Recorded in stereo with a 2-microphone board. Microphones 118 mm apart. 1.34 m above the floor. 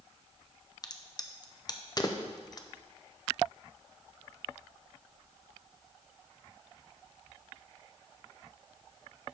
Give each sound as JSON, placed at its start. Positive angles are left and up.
{"t": 0.8, "sound": "a crack", "side_deg": 35, "distance_m": 0.6}